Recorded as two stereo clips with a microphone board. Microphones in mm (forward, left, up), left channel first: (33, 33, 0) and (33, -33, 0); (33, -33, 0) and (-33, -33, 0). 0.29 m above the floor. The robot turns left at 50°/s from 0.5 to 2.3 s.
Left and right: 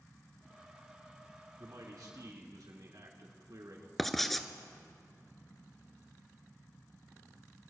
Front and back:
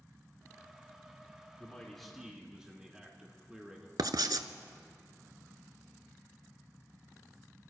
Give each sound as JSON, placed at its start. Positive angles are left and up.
{"t": 1.6, "sound": "a man speaking", "azimuth_deg": -65, "distance_m": 3.5}
{"t": 4.0, "sound": "writing", "azimuth_deg": 175, "distance_m": 0.6}